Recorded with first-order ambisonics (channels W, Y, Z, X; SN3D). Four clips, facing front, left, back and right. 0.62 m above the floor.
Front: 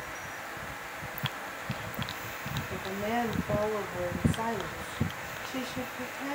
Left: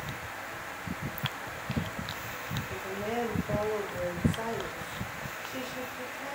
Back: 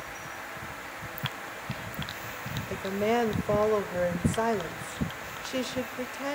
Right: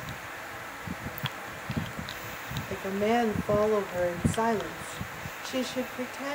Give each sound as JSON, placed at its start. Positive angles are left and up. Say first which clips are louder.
{"t": 2.7, "sound": "a woman speaking", "louder": "right 10 dB, back 6 dB", "azimuth_deg": -140, "distance_m": 3.0}